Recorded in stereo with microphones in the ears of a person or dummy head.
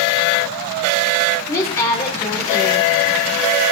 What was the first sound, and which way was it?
A woman speaking, 20° left (ahead or behind).